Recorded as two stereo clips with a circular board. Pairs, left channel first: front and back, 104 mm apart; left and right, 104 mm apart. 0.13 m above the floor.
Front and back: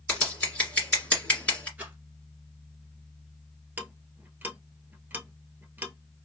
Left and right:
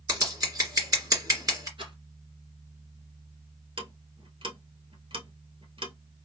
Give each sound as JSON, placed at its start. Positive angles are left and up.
{"t": 0.1, "sound": "scissors", "azimuth_deg": -70, "distance_m": 2.0}
{"t": 1.8, "sound": "a rattle", "azimuth_deg": -110, "distance_m": 2.5}
{"t": 3.8, "sound": "ticking", "azimuth_deg": -110, "distance_m": 0.9}